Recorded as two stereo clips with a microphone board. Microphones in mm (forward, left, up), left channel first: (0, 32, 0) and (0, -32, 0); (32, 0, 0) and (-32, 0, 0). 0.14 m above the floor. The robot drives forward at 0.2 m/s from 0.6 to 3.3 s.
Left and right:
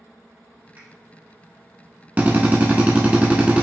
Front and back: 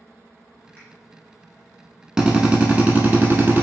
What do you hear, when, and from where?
0.8 s a finger snap: 55° right, 1.9 m
2.2 s a drill: 115° right, 0.6 m; by 3.6 s 145° right, 0.6 m